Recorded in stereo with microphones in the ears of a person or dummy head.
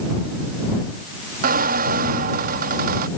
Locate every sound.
1.4 s a squeak: 45° right (ahead or behind)